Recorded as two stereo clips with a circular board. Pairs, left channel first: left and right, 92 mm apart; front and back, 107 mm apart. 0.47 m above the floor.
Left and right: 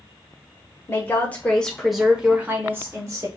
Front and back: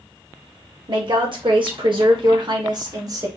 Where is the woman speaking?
150° left, 1.6 m; by 3.3 s 135° right, 1.5 m.